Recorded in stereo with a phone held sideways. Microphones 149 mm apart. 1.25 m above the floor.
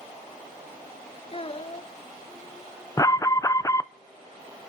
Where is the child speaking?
40° left (ahead or behind), 0.5 m.